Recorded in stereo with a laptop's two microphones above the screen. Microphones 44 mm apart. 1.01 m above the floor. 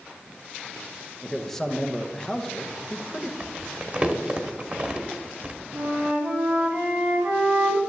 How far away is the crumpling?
About 1.1 m.